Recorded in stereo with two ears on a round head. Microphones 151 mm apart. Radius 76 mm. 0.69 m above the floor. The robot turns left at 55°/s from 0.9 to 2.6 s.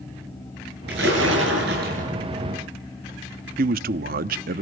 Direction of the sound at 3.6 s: 55° right (ahead or behind).